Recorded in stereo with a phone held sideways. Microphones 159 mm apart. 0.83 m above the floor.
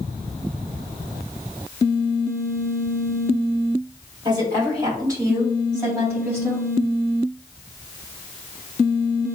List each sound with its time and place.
4.2 s a woman speaking: 30° right (ahead or behind), 2.5 m; by 6.7 s 15° right (ahead or behind), 4.5 m